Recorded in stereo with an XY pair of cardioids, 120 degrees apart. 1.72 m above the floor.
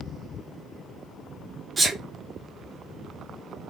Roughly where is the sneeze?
Ahead right.